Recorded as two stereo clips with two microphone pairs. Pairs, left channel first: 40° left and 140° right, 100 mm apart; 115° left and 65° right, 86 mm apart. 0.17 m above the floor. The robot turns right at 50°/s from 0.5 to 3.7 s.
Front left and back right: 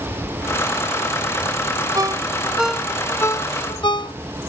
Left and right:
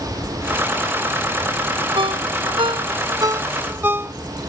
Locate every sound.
1.9 s a ringtone: 90° right; by 4.1 s straight ahead